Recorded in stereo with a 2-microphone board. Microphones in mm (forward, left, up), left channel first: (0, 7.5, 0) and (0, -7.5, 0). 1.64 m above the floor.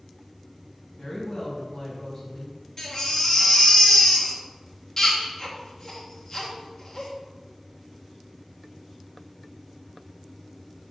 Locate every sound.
1.0 s a woman speaking: 20° left (ahead or behind), 2.5 m
2.8 s a baby crying: 25° left (ahead or behind), 1.6 m